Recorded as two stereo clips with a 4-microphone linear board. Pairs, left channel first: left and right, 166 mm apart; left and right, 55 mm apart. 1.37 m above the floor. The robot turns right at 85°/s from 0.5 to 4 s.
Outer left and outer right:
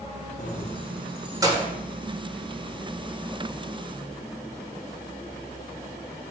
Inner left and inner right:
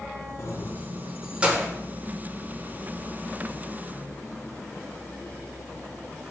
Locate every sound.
0.4 s keys jangling: 50° left (ahead or behind), 0.5 m; by 1.7 s 45° right (ahead or behind), 0.5 m